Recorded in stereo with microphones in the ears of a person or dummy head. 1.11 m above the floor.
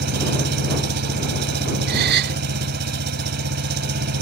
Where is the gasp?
55° right (ahead or behind).